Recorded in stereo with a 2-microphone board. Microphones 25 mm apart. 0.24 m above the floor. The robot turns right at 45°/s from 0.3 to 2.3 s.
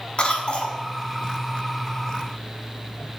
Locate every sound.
0.2 s a cough: 45° left (ahead or behind), 1.8 m; by 0.8 s 55° left (ahead or behind), 1.8 m